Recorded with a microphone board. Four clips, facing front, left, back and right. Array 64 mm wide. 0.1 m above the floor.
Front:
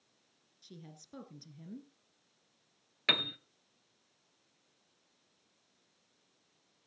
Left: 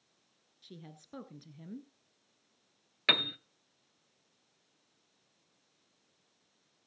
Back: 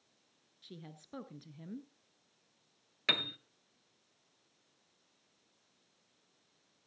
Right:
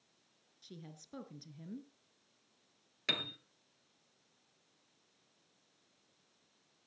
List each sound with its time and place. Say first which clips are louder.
0.6 s a woman speaking: left 1 dB, back 2 dB; 150° left, 1.1 m
3.1 s a piano: left 8 dB, front 2 dB; 80° left, 0.7 m